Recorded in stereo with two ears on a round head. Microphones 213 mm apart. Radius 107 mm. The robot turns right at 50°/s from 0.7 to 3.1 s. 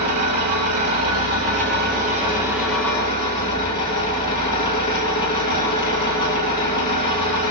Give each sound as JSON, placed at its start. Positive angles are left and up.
{"t": 0.0, "sound": "an engine running", "azimuth_deg": -100, "distance_m": 3.5}